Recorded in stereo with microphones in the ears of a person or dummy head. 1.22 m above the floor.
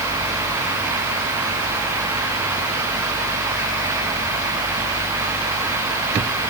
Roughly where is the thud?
No thud in this recording.